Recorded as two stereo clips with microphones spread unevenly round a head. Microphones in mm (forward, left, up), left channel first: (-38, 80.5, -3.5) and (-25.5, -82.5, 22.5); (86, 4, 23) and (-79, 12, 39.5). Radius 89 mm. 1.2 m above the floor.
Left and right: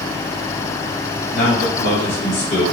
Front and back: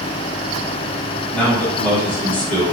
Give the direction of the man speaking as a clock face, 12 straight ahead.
9 o'clock.